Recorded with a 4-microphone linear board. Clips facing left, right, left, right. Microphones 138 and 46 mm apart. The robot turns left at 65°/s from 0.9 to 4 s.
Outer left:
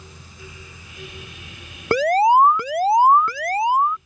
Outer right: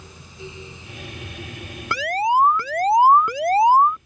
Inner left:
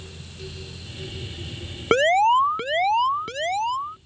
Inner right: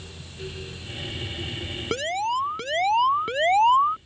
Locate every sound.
1.9 s an alarm: 70° left; by 4.0 s 65° right